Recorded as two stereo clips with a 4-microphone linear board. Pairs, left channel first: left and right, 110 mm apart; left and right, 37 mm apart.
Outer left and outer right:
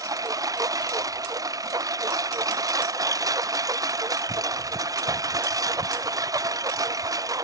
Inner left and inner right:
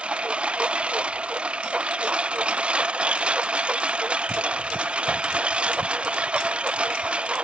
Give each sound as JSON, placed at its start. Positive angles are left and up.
{"t": 0.0, "sound": "a lawn mower", "side_deg": -30}